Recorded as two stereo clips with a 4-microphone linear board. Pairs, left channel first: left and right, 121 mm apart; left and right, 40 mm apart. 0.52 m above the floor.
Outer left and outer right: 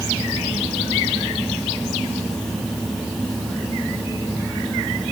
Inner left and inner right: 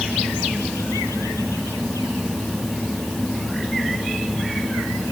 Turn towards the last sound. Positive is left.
No sound to turn to.